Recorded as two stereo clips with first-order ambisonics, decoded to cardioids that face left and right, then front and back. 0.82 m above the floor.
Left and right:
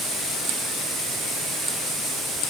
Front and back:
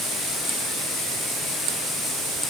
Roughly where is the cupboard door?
I don't hear a cupboard door.